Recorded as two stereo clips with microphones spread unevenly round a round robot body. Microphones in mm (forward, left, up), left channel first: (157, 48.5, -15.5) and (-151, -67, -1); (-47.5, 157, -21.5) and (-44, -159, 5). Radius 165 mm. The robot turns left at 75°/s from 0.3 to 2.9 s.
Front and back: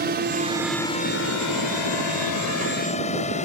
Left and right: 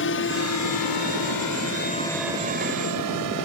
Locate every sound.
0.0 s a drone: 140° left; by 3.5 s 50° right